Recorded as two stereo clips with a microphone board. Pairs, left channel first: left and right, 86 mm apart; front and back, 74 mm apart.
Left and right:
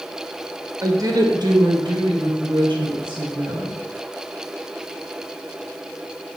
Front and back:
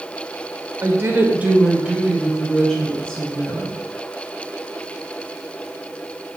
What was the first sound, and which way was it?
A woman speaking, 135° right.